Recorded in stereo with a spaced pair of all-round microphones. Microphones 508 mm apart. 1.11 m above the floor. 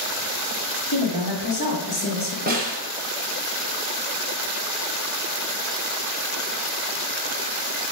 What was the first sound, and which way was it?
A woman speaking, 45° left (ahead or behind).